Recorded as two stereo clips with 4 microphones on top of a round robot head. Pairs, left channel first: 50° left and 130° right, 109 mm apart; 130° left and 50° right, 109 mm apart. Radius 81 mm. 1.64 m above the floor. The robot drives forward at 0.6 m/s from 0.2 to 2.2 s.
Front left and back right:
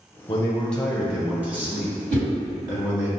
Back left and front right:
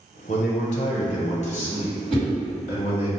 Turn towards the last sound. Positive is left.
turn(degrees=-150)